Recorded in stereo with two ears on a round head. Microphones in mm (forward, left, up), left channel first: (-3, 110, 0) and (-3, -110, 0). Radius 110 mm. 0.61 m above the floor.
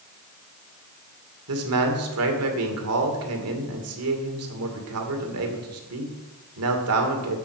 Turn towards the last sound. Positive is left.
turn(degrees=-65)  # may be behind; listen again after turning